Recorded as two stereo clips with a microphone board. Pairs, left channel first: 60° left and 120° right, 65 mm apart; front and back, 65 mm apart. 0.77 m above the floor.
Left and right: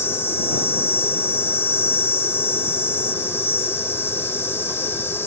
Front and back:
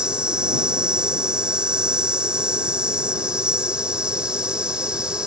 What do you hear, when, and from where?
0.0 s an insect: 110° left